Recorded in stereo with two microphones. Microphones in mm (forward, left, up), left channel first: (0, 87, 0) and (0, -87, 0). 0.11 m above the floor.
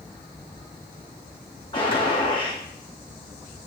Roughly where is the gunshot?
Left.